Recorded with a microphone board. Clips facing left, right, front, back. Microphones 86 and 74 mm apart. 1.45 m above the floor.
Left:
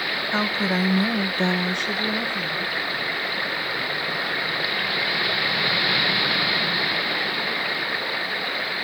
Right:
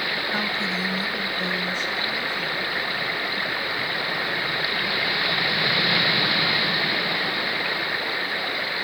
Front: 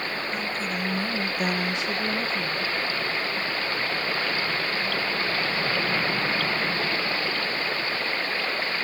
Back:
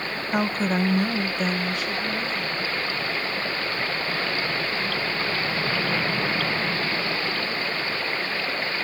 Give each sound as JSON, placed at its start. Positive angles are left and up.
{"t": 0.3, "sound": "a woman speaking", "azimuth_deg": 155, "distance_m": 1.0}